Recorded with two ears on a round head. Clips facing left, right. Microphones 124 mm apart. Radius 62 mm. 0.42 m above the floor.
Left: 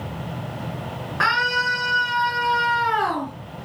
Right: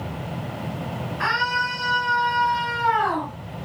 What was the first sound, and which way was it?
A scream, 75° left (ahead or behind).